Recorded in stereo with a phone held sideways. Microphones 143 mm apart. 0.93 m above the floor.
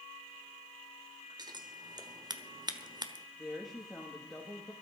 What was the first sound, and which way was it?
Scissors, 30° right (ahead or behind).